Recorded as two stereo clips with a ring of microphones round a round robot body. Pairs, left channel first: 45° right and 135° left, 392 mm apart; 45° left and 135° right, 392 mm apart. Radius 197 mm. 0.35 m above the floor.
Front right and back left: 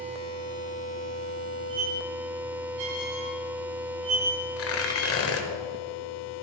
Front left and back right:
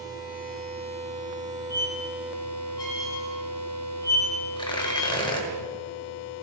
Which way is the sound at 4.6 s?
25° right.